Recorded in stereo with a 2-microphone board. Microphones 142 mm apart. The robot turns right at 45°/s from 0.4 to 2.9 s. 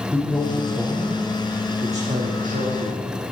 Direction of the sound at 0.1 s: 15° left (ahead or behind).